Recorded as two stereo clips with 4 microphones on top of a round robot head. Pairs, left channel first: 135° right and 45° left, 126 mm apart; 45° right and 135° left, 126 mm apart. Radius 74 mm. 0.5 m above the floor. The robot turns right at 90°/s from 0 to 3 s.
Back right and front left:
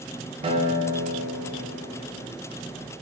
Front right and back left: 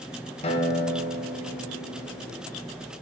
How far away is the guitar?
About 1.0 m.